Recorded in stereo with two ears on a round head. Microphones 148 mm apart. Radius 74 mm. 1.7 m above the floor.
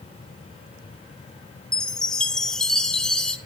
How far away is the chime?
About 0.8 m.